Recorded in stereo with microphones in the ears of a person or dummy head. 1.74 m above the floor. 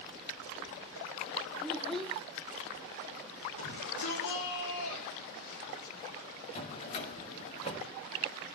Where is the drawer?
35° left (ahead or behind), 2 m.